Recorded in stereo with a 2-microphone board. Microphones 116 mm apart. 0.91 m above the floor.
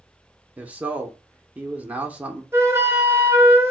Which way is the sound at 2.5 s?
20° right (ahead or behind).